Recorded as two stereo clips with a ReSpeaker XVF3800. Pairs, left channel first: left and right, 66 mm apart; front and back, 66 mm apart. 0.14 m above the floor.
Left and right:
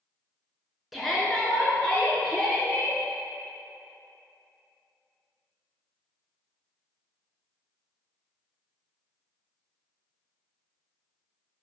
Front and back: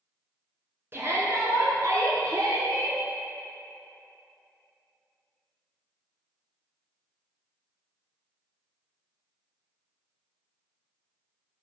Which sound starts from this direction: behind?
A shout, at 0.9 s.